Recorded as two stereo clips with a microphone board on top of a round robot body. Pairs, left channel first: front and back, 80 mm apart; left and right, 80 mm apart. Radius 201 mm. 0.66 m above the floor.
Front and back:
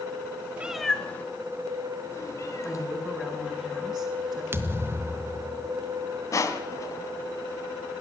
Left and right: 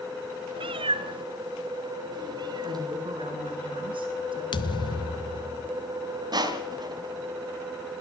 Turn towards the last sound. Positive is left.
turn(degrees=-55)